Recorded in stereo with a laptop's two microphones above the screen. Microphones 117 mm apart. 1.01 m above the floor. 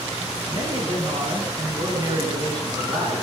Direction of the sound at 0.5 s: 35° right (ahead or behind).